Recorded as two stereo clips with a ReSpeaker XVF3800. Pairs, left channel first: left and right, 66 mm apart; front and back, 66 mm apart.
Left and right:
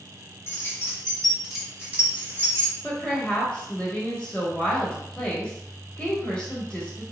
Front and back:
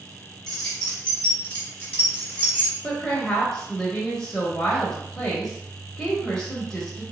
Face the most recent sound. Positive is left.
turn(degrees=45)